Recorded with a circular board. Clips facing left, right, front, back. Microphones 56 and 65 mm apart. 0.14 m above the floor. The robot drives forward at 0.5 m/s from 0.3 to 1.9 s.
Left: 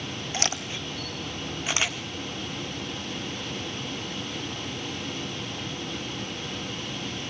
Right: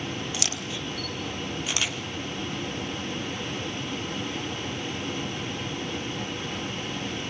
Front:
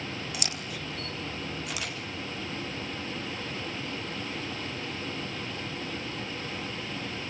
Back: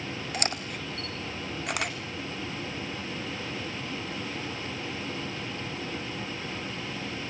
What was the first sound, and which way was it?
A camera shutter, 135° left.